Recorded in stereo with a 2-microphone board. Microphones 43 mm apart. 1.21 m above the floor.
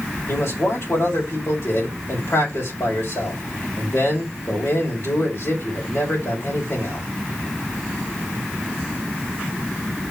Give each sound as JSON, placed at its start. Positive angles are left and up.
{"t": 0.3, "sound": "a man speaking", "side_deg": 85, "distance_m": 4.5}